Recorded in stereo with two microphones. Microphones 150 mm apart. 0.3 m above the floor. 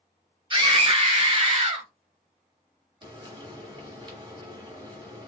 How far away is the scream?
About 1.3 m.